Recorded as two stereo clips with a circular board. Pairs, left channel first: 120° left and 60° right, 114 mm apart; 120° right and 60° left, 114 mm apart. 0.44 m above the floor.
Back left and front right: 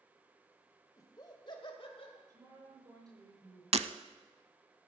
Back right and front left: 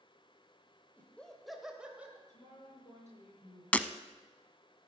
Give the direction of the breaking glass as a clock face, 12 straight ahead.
1 o'clock.